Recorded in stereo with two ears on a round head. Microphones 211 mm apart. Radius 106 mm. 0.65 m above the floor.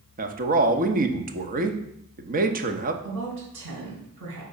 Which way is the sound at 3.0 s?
65° right (ahead or behind).